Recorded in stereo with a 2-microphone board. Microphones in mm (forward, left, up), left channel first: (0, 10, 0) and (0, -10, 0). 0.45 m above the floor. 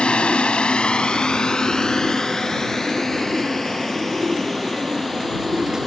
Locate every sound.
0.0 s a drone: 65° left (ahead or behind); by 5.9 s 15° left (ahead or behind)